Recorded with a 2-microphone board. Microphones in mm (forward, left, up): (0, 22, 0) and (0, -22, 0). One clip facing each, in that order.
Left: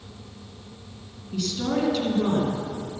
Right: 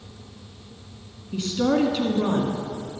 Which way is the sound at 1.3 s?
30° right (ahead or behind).